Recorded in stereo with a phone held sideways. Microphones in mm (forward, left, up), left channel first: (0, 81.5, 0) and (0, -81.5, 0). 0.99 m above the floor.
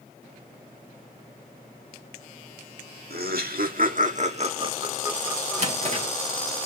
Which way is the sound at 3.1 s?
70° right (ahead or behind).